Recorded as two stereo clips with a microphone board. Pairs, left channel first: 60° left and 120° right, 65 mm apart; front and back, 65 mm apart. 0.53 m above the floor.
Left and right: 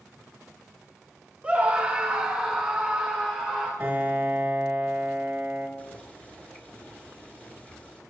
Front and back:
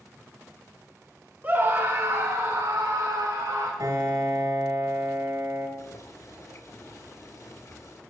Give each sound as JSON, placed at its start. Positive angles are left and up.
{"t": 1.4, "sound": "a scream", "azimuth_deg": -165, "distance_m": 0.8}
{"t": 3.8, "sound": "a piano", "azimuth_deg": 175, "distance_m": 2.0}
{"t": 5.8, "sound": "boiling", "azimuth_deg": 0, "distance_m": 1.4}